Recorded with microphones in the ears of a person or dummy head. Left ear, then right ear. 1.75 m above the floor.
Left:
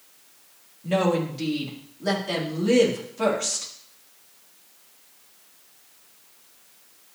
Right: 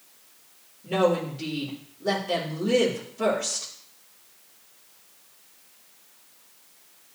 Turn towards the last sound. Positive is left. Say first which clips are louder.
# even
turn(degrees=85)